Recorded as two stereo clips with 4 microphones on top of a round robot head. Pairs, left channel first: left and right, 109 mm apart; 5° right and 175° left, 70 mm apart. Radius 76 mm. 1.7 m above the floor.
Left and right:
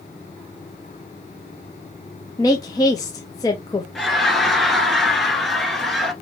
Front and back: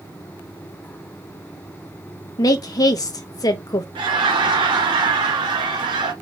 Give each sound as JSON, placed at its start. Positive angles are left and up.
{"t": 2.4, "sound": "a woman speaking", "azimuth_deg": 25, "distance_m": 0.7}
{"t": 4.0, "sound": "laughter", "azimuth_deg": 180, "distance_m": 2.0}